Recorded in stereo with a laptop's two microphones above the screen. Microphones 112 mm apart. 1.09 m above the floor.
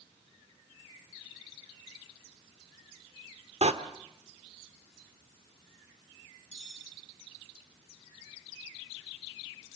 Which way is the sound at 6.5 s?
85° left.